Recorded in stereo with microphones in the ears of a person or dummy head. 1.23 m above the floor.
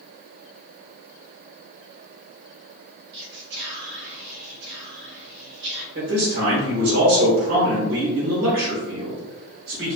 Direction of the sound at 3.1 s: 55° right (ahead or behind).